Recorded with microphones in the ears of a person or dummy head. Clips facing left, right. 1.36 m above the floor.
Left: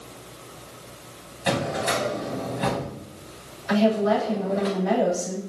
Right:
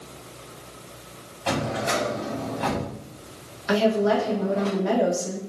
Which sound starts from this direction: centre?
A drawer, at 1.5 s.